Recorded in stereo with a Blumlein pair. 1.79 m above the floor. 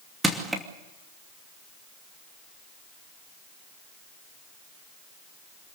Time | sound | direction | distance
0.2 | crushing | 5° right | 2.5 m